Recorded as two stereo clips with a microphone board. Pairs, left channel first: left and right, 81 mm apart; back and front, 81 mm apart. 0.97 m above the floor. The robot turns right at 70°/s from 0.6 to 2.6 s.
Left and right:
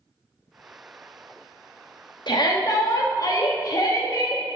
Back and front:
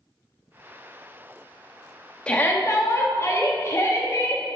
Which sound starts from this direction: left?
A shout, at 2.3 s.